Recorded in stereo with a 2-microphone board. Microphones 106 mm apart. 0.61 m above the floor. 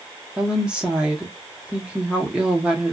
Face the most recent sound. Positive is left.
turn(degrees=-10)  # may be behind; listen again after turning